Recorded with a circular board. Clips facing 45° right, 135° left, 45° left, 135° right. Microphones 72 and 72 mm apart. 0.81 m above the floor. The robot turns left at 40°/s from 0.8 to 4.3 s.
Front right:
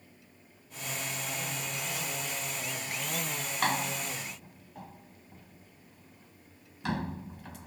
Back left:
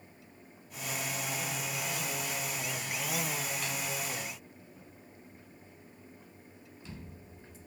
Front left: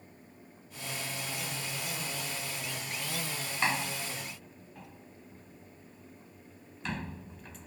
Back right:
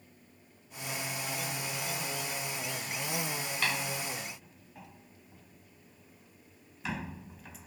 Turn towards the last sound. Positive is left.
turn(degrees=-50)